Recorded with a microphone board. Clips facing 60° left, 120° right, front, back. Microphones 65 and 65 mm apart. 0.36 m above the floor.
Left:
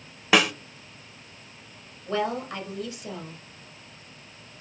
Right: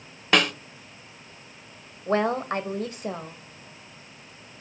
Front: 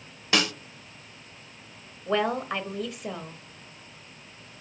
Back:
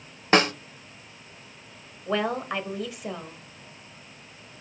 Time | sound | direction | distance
0.3 | a snare drum | 145° left | 0.7 m
2.1 | a woman speaking | 90° right | 1.3 m